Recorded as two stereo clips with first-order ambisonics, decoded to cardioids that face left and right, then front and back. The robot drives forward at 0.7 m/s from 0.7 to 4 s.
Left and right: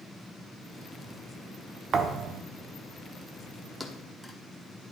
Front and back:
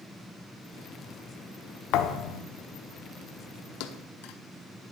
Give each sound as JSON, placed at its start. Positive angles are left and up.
{"t": 1.9, "sound": "a thud", "azimuth_deg": -25, "distance_m": 0.8}
{"t": 3.8, "sound": "a thud", "azimuth_deg": 0, "distance_m": 0.9}